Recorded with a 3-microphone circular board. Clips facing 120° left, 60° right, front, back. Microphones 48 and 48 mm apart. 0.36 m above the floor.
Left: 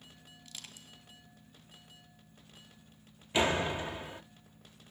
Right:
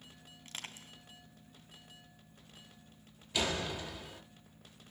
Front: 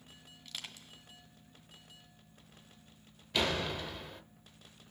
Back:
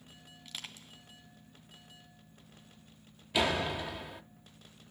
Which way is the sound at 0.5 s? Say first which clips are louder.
Right 5 dB, back 1 dB; 95° right.